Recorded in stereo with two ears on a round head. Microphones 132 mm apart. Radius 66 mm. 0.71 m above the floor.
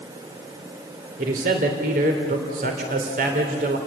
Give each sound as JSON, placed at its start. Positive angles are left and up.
{"t": 1.2, "sound": "a man speaking", "side_deg": -60, "distance_m": 3.0}